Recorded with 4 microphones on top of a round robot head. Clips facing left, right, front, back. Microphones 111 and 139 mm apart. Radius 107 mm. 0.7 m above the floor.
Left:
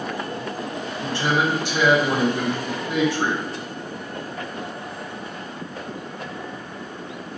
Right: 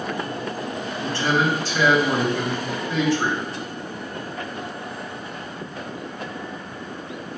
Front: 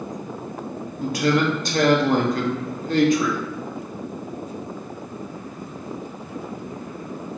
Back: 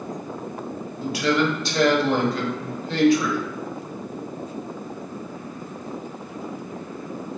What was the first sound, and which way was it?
A man speaking, 20° left.